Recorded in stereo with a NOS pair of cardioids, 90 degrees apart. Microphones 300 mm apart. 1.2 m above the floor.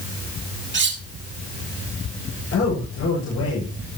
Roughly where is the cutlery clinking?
Ahead right.